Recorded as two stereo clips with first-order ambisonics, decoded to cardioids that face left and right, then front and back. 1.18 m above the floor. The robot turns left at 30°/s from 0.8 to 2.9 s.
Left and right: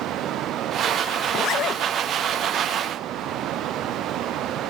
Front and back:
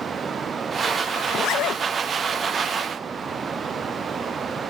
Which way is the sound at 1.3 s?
50° left.